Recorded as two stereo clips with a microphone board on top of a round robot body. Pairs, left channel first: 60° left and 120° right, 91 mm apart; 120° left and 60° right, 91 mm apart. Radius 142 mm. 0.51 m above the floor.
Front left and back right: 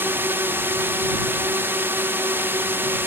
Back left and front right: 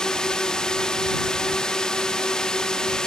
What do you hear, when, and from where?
0.0 s a drone: 165° right